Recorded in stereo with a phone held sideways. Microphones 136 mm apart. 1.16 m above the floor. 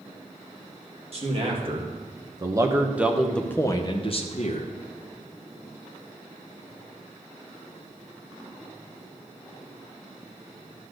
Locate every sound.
1.1 s a man speaking: 45° right (ahead or behind), 2.0 m; by 4.7 s 60° left (ahead or behind), 1.2 m